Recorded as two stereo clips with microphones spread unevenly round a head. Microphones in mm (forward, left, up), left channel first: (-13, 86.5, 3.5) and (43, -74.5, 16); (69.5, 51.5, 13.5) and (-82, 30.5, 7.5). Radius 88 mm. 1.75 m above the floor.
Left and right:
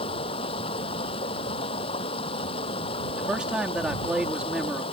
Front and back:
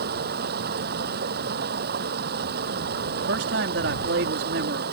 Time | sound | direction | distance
0.0 | running water | 170° left | ?
3.2 | a man speaking | 155° right | ?